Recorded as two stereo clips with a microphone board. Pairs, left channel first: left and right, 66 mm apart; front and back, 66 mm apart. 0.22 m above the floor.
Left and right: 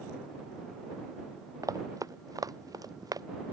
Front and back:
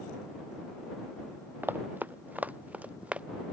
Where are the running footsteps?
120° right; by 3.3 s 110° right.